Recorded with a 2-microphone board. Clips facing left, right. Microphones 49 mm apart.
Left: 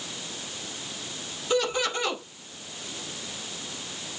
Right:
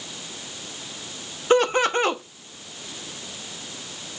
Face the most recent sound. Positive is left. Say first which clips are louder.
# right 7 dB
turn(degrees=-45)  # may be behind; listen again after turning